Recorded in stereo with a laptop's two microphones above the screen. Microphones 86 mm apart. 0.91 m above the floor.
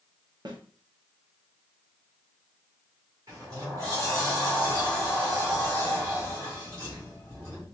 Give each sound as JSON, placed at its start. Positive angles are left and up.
{"t": 0.5, "sound": "a snare drum", "side_deg": -55, "distance_m": 0.9}
{"t": 3.3, "sound": "a sliding door", "side_deg": -40, "distance_m": 2.0}